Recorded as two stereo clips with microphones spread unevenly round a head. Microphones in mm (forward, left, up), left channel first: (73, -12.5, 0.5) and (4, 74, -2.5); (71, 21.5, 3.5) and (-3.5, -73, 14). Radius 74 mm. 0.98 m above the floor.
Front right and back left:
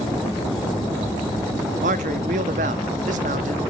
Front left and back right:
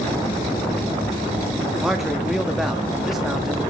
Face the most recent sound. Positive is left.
turn(degrees=145)